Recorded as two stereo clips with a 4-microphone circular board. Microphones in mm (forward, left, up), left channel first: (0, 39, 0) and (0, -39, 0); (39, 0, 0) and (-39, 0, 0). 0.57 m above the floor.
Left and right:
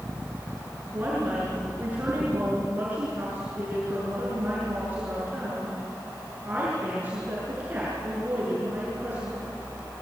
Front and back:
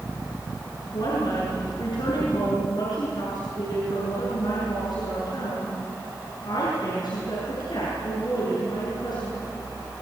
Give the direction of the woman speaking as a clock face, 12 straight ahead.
1 o'clock.